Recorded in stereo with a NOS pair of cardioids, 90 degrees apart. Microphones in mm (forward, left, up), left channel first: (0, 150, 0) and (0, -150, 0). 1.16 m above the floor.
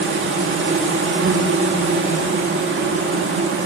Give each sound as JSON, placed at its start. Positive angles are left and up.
{"t": 0.0, "sound": "an insect", "azimuth_deg": -40, "distance_m": 2.5}